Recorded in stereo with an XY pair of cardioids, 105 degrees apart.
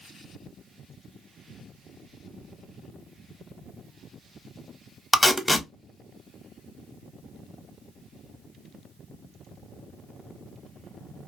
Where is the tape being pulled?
15° left, 0.7 m.